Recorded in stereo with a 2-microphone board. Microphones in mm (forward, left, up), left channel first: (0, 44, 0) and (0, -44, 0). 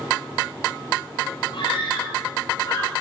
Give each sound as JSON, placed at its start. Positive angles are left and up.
{"t": 1.5, "sound": "a scream", "side_deg": 65, "distance_m": 5.5}